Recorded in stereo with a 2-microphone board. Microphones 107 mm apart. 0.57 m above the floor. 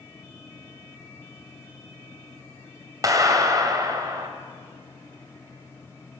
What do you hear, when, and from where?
3.0 s a clap: 35° right (ahead or behind), 2.5 m